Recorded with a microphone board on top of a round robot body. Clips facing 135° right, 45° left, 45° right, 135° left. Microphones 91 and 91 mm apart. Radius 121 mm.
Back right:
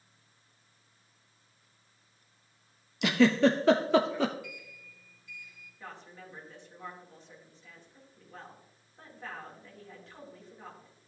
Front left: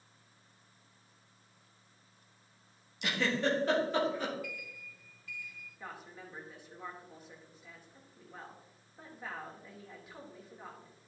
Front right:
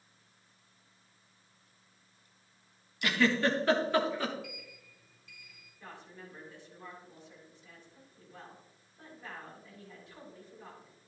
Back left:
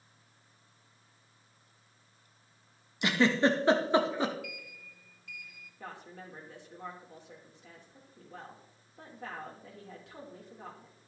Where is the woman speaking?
125° left, 3.5 m.